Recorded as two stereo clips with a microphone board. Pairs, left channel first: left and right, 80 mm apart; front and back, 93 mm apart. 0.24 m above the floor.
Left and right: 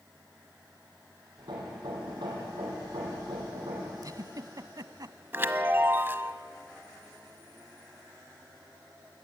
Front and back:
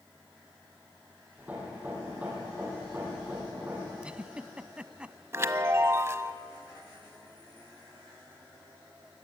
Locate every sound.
1.4 s hammering: 105° right, 6.5 m
4.0 s a giggle: 105° right, 0.7 m
5.3 s a chime: 135° right, 0.9 m